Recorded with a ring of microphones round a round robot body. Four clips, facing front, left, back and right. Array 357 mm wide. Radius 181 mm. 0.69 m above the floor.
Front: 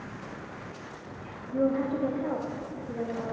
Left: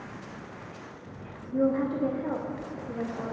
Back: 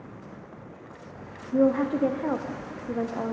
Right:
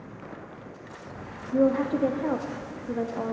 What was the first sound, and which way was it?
A woman speaking, 150° right.